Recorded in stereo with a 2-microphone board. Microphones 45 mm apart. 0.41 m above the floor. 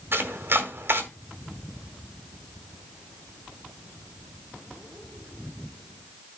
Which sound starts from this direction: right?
Chopping, at 0.1 s.